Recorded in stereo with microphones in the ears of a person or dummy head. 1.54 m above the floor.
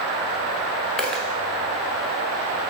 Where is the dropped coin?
Centre (ahead or behind), 0.9 m.